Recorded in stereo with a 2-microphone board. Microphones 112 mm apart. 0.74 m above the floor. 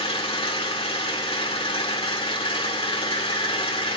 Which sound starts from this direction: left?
An engine running, at 0.0 s.